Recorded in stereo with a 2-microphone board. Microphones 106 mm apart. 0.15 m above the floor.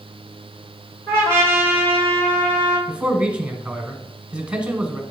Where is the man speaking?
10° right (ahead or behind), 1.2 m.